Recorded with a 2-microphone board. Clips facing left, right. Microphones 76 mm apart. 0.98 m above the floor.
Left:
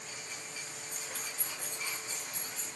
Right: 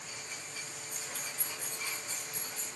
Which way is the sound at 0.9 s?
60° left (ahead or behind).